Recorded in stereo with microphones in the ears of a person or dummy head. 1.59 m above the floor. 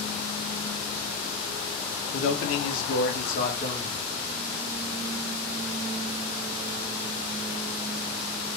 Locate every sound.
2.1 s a man speaking: 65° left (ahead or behind), 0.8 m; by 4.0 s 35° left (ahead or behind), 1.1 m